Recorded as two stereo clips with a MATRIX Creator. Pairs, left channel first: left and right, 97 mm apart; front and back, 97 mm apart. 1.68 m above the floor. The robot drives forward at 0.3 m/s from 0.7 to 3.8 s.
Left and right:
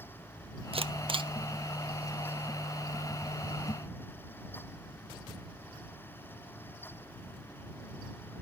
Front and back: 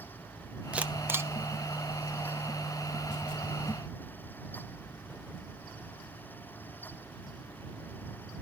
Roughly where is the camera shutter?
Right.